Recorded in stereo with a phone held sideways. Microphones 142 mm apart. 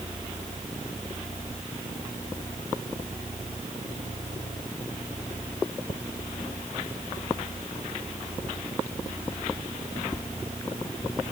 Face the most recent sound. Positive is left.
No sound to turn to.